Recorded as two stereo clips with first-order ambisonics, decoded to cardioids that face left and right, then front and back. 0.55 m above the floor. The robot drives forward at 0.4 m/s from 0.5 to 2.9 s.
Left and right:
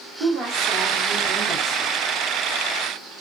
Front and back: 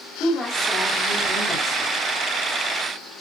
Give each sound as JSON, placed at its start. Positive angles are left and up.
{"t": 0.2, "sound": "a woman speaking", "azimuth_deg": -55, "distance_m": 1.1}